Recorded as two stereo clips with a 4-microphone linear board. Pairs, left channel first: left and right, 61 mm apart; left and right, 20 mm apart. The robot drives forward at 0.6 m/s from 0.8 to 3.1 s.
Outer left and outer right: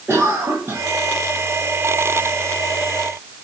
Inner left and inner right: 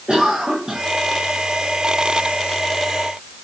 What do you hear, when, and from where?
0.1 s a cough: 45° right (ahead or behind), 1.7 m